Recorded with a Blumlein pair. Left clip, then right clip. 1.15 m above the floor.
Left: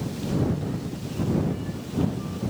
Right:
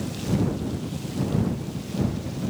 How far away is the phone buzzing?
I don't hear a phone buzzing.